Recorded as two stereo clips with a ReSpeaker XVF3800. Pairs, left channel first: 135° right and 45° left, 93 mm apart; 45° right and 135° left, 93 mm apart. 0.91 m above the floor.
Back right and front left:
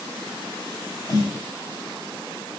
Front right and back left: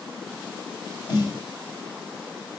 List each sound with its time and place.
1.1 s a snare drum: 85° right, 6 m